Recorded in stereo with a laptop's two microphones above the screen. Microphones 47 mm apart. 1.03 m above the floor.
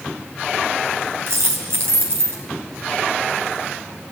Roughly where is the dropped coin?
Right.